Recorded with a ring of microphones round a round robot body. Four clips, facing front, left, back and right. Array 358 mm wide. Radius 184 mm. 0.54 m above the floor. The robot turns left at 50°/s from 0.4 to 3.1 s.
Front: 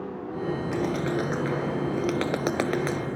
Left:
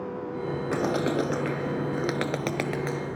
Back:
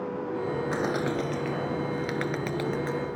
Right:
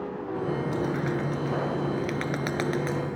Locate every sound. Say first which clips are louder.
0.7 s a bird: left 2 dB, front 2 dB; 110° left; by 3.2 s 10° right